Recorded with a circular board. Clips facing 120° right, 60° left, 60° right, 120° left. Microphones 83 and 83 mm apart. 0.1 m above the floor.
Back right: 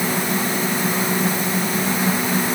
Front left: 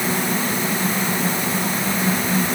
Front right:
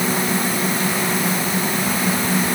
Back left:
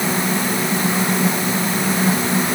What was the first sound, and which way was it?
Only background noise.